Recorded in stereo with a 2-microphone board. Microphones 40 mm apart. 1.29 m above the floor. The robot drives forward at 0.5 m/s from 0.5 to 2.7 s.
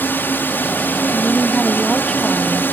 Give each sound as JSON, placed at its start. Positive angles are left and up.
{"t": 0.0, "sound": "a drone", "side_deg": 55}
{"t": 1.1, "sound": "a woman speaking", "side_deg": 15}